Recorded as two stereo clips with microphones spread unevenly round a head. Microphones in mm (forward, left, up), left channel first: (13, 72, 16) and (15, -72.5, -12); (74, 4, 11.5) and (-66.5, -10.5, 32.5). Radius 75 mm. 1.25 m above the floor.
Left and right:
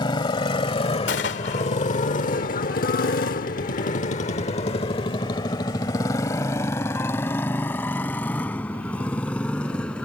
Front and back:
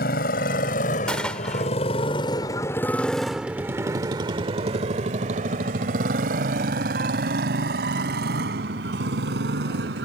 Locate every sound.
0.0 s a motorcycle: 35° left; by 10.1 s 170° left
1.1 s a gunshot: 90° left